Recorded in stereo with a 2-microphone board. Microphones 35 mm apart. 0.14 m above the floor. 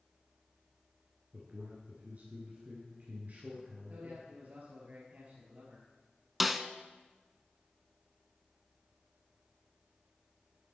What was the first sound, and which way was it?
A man speaking, 50° right (ahead or behind).